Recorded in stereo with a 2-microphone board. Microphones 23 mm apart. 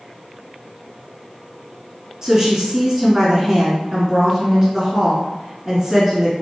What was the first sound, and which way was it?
A woman speaking, 25° right (ahead or behind).